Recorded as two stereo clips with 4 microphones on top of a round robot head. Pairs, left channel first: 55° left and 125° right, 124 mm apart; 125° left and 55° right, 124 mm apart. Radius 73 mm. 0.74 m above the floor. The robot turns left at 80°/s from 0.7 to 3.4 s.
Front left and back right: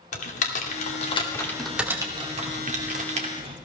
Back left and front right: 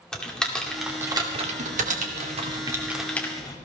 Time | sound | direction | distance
0.1 | typing on a keyboard | 40° left | 2.5 m